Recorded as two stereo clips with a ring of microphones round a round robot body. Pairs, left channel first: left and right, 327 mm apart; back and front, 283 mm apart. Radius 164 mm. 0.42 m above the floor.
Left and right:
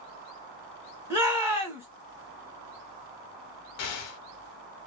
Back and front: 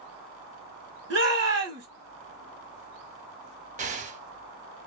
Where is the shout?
10° right, 1.2 m.